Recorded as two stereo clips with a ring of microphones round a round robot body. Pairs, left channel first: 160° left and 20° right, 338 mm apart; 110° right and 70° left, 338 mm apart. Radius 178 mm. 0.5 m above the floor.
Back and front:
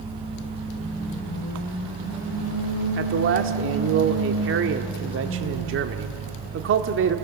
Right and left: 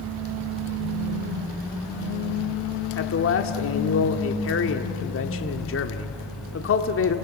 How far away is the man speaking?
About 1.1 m.